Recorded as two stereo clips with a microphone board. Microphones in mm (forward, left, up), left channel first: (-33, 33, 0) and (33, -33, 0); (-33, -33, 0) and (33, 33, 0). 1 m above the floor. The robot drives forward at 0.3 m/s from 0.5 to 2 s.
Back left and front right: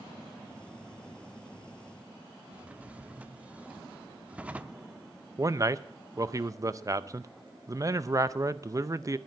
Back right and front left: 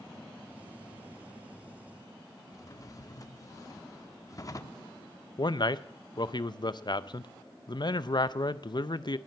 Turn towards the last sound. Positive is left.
turn(degrees=-100)